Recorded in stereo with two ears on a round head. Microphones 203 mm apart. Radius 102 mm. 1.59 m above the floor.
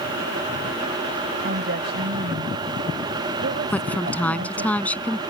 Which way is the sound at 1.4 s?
50° right (ahead or behind).